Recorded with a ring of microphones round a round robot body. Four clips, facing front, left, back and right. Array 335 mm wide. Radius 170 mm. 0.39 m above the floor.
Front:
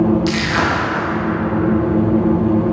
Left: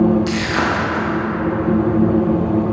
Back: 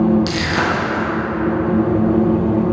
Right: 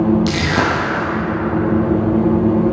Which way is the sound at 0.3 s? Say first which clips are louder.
Right 2 dB, front 1 dB; 115° right.